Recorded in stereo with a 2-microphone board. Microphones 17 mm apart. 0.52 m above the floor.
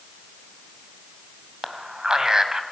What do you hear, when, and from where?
1.6 s a man speaking: 45° right (ahead or behind), 2.5 m